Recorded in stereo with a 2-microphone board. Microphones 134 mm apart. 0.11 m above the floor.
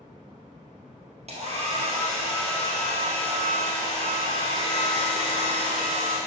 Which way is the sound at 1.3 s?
55° right (ahead or behind).